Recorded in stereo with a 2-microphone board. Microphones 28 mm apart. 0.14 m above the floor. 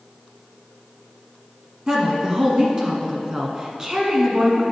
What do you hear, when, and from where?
1.9 s a woman speaking: 25° right (ahead or behind), 1.2 m